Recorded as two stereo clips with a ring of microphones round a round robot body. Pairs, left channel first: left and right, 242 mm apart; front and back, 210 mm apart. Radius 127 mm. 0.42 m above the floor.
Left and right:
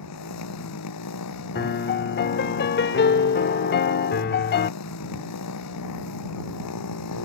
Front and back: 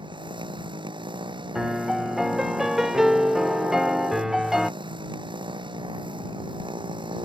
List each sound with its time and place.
0.0 s a motorcycle: 110° left
1.6 s a piano: 95° left